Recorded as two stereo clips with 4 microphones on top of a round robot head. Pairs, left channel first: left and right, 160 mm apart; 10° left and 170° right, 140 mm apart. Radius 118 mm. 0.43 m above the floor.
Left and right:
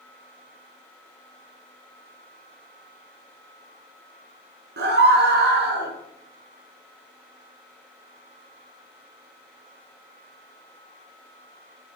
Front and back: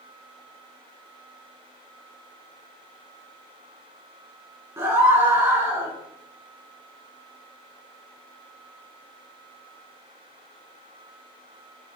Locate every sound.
4.8 s a scream: 95° right, 5.5 m; by 5.9 s 100° right, 5 m